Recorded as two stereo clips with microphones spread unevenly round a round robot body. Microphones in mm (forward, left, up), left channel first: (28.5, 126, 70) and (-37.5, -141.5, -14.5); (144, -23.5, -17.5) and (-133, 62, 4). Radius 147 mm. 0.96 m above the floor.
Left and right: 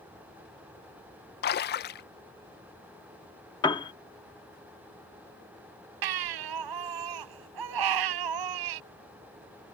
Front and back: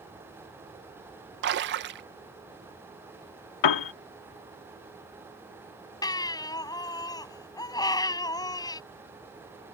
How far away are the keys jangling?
I don't hear keys jangling.